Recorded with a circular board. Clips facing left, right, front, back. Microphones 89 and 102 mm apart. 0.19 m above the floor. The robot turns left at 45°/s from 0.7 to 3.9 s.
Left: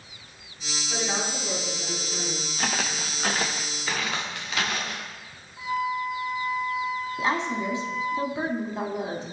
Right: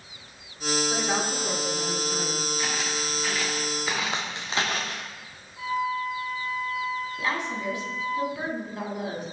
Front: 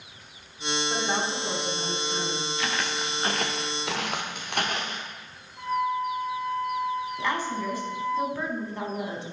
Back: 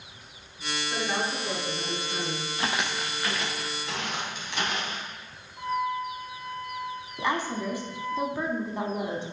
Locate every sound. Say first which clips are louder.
0.9 s a woman speaking: right 3 dB, even; 20° right, 1.5 m; by 2.5 s 95° right, 1.5 m
2.6 s footsteps: left 1 dB, back 3 dB; 120° left, 1.1 m; by 5.0 s 40° right, 2.0 m
5.6 s a flute: even, front 2 dB; 140° left, 1.3 m
7.2 s a woman speaking: left 6 dB, even; 120° left, 1.1 m